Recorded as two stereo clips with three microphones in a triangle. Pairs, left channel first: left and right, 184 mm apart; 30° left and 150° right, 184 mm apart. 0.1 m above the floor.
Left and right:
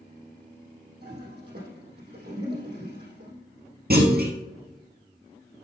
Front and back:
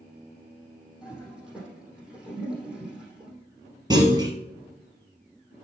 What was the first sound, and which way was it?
A toilet flushing, 65° right.